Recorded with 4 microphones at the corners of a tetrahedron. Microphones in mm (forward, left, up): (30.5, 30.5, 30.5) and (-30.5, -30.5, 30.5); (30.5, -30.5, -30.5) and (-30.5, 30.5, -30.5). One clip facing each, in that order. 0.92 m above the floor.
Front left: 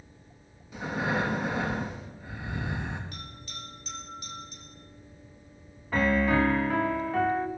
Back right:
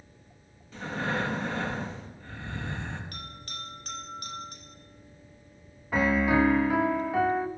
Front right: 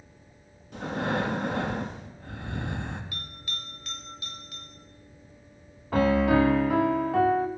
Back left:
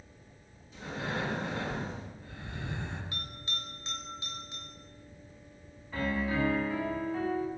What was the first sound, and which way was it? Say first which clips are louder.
Breathing: front left 2 dB, front right 7 dB; 30° right.